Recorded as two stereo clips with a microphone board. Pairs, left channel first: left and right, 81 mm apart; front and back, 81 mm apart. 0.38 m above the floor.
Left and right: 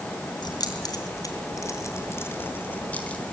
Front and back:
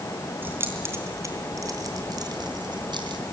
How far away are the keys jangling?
About 3 m.